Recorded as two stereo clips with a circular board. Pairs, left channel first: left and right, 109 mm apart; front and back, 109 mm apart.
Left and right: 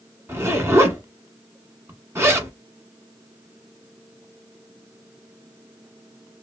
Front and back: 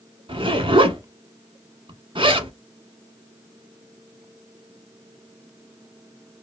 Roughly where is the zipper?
Behind right.